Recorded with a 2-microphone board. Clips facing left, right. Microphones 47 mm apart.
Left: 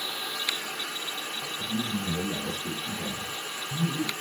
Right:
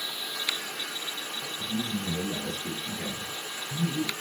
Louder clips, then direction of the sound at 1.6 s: Left 1 dB; 10° left (ahead or behind).